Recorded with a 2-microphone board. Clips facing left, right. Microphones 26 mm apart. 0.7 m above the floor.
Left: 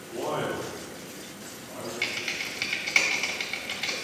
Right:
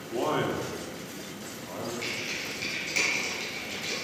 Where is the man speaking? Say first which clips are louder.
Right 2 dB; 35° right (ahead or behind), 1.2 m; by 1.9 s 55° right (ahead or behind), 2.5 m.